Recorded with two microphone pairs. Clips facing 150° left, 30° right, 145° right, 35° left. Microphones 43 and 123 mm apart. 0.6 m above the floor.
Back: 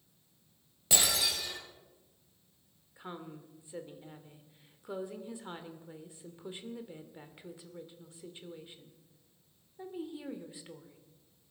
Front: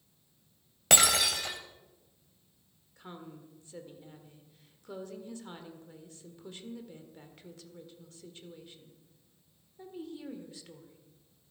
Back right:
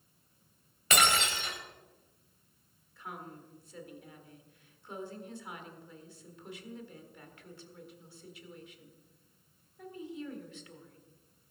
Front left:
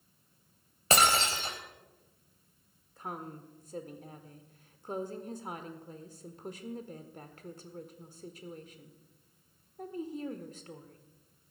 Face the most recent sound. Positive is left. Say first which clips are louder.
# back 2 dB, front left 4 dB
turn(degrees=80)